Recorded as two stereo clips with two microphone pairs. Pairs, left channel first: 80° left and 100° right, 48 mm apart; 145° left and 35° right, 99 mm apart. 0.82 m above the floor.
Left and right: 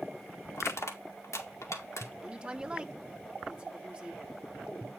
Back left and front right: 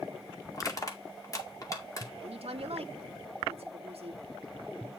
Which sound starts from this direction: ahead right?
A woman speaking, at 2.2 s.